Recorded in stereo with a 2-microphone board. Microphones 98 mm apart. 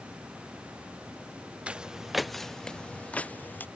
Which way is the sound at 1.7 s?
10° right (ahead or behind).